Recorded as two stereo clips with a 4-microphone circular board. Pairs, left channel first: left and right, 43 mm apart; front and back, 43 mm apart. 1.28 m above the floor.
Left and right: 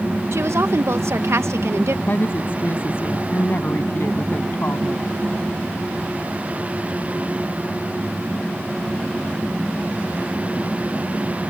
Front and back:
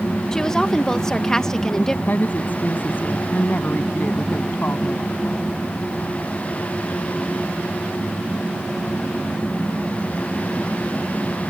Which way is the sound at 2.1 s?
50° left.